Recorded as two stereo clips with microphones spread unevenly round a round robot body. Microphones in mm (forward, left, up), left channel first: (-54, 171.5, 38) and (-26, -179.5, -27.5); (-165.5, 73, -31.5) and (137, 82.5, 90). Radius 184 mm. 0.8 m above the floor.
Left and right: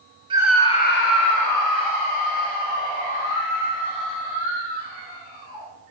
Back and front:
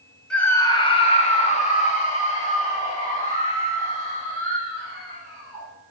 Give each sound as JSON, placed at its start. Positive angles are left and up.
{"t": 0.3, "sound": "a scream", "azimuth_deg": -130, "distance_m": 0.7}